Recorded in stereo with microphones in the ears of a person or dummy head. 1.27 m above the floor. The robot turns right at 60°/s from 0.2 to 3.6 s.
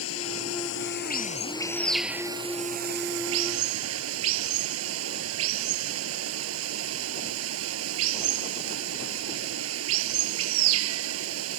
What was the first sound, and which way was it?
Running water, 80° left.